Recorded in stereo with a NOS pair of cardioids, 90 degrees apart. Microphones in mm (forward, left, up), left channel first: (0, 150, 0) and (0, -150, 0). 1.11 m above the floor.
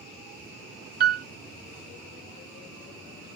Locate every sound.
1.0 s a piano: 30° right, 0.6 m